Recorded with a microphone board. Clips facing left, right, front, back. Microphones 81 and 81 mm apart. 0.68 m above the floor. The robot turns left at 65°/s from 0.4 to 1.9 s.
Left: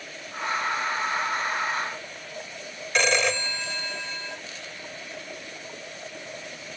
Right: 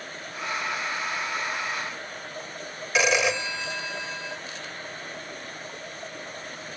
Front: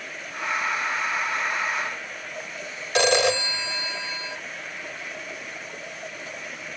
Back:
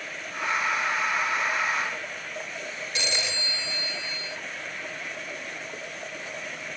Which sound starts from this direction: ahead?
A phone ringing, at 3.0 s.